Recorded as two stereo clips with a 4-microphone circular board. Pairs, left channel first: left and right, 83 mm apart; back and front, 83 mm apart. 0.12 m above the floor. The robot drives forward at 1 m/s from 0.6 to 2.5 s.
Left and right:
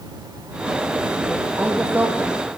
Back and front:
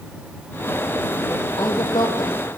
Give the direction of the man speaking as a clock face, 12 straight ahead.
5 o'clock.